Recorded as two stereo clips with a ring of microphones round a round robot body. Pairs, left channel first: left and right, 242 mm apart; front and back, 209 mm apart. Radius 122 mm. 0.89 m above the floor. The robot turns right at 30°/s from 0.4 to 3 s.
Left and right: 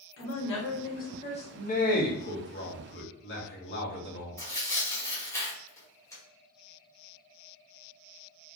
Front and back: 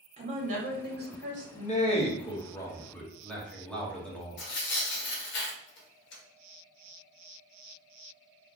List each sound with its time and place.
0.2 s a woman speaking: 125° left, 1.6 m; by 1.4 s 155° left, 1.6 m
1.6 s a man speaking: 40° left, 1.3 m; by 4.4 s 85° left, 1.3 m
4.4 s tearing paper: 15° left, 1.3 m